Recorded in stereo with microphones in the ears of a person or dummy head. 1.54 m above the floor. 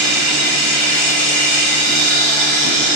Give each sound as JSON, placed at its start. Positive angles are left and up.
{"t": 0.0, "sound": "a machine running", "side_deg": 5, "distance_m": 1.0}